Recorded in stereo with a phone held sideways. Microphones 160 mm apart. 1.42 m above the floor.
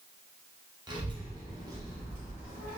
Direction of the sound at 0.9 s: 25° right (ahead or behind).